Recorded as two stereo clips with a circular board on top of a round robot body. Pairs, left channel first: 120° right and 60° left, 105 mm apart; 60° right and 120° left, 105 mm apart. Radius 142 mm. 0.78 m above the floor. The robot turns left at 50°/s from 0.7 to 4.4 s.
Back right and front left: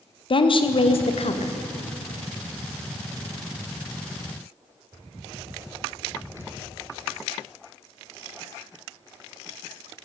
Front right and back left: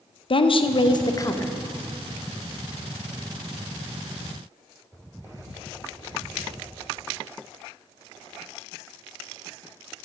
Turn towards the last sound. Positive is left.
turn(degrees=85)